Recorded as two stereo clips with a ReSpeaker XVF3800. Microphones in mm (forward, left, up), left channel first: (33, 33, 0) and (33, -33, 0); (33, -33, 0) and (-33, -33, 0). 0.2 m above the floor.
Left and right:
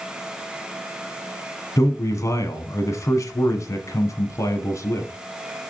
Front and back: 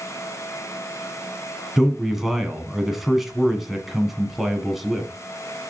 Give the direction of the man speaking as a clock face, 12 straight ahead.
9 o'clock.